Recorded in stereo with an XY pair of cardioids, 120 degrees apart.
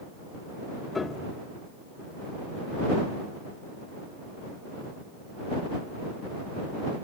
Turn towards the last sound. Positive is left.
turn(degrees=25)